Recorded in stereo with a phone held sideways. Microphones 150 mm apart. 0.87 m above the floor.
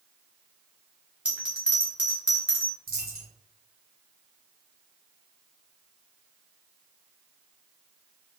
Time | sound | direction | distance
1.2 | a bell | 10° right (ahead or behind) | 1.0 m
2.9 | a dropped coin | 75° right (ahead or behind) | 1.5 m